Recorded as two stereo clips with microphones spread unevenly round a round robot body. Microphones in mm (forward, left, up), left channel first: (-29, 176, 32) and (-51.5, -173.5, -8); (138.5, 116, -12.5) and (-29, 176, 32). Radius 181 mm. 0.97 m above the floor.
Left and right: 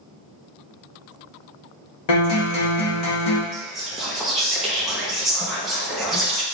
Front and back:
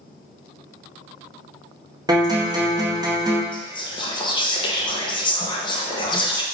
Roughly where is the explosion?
No explosion in this recording.